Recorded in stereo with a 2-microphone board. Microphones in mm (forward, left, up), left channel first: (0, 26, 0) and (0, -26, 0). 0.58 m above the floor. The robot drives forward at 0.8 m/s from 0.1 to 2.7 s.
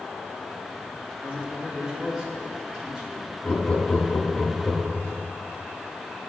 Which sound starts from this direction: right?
A man speaking, at 1.2 s.